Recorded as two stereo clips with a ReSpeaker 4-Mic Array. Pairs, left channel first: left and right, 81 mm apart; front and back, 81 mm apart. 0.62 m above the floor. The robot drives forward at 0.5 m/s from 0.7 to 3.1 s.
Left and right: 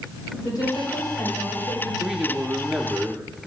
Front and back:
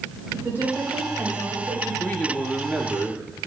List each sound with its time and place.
0.3 s a woman speaking: 115° left, 3 m; by 1.9 s 125° left, 3 m
2.0 s a man speaking: 20° right, 0.7 m; by 3.2 s 160° right, 0.7 m